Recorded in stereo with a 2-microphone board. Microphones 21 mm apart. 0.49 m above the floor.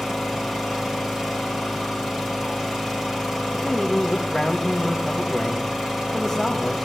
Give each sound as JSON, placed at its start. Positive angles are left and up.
{"t": 0.0, "sound": "an engine running", "side_deg": -30, "distance_m": 9.0}
{"t": 3.5, "sound": "a man speaking", "side_deg": 0, "distance_m": 3.0}